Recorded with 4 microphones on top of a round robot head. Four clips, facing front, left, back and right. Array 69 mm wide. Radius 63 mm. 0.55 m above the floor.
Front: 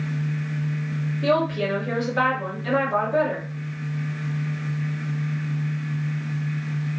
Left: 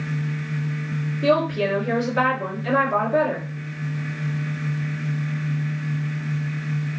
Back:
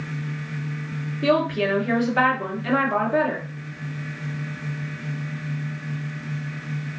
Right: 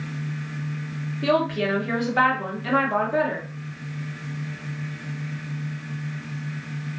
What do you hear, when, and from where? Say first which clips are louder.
1.2 s a woman speaking: left 2 dB, back 2 dB; 145° right, 1.3 m